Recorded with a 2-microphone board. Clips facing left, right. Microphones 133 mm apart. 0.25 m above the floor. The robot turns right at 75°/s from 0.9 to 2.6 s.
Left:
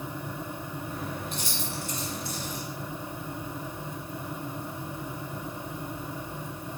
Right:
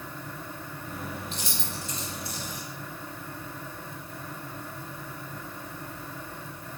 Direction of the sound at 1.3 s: 55° left (ahead or behind).